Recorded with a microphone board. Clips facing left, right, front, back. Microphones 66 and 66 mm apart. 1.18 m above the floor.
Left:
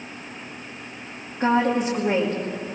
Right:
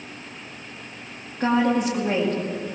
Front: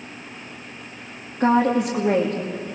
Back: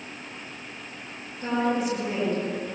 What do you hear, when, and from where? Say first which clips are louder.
1.4 s a woman speaking: even, front 7 dB; 10° left, 2.5 m